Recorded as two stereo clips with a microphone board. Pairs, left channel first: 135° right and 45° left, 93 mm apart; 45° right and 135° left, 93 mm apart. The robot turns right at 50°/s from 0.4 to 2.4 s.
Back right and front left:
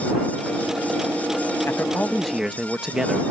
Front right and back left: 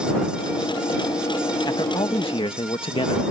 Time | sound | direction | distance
1.7 | a man speaking | 75° right | ?